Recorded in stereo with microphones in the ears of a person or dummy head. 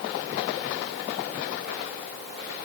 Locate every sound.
Only background noise.